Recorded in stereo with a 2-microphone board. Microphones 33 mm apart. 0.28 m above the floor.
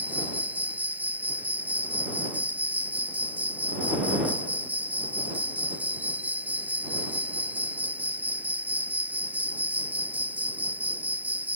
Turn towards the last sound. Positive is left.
turn(degrees=-60)  # may be behind; listen again after turning